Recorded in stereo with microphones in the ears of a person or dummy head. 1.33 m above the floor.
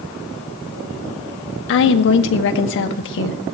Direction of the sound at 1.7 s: 65° left (ahead or behind).